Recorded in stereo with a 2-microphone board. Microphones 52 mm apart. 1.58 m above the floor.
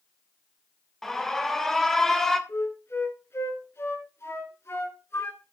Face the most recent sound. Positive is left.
turn(degrees=55)  # may be behind; listen again after turning